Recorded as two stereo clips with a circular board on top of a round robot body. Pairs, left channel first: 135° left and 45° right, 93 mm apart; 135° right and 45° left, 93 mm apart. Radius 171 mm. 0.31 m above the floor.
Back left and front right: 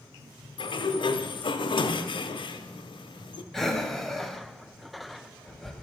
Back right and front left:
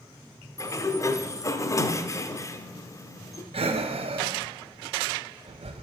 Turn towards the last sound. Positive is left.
turn(degrees=50)